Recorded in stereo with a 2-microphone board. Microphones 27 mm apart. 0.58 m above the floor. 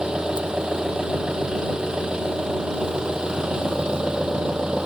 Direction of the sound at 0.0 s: 35° right (ahead or behind).